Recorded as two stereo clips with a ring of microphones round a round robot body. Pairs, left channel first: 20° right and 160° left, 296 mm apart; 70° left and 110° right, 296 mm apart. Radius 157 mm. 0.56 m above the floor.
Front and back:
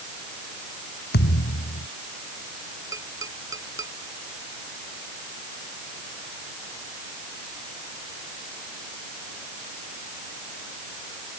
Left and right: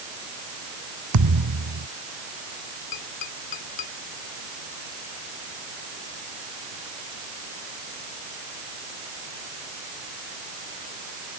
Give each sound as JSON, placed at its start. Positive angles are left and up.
{"t": 1.1, "sound": "a thud", "azimuth_deg": -80}
{"t": 2.9, "sound": "tapping", "azimuth_deg": 80}